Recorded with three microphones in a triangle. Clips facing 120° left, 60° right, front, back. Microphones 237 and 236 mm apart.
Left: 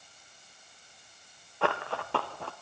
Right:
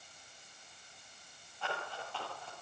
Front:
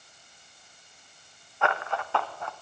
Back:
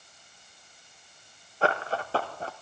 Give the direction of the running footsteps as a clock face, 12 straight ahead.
8 o'clock.